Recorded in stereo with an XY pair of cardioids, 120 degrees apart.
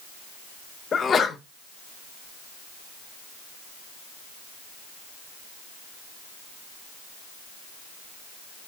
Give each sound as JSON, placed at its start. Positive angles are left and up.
{"t": 0.9, "sound": "a sneeze", "azimuth_deg": 35, "distance_m": 0.5}